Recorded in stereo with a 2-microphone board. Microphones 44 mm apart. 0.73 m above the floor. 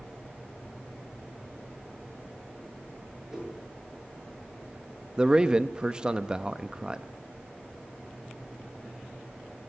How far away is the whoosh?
About 8 m.